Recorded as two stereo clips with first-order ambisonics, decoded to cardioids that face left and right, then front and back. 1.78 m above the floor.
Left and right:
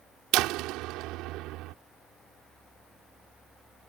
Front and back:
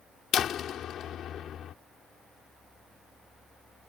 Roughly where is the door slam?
Ahead right.